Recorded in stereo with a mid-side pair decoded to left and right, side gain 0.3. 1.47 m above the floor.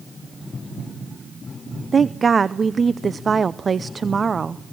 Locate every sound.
1.9 s a woman speaking: 50° right, 0.6 m